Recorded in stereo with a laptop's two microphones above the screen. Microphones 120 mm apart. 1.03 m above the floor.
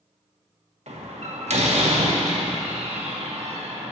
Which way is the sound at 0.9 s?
65° right (ahead or behind).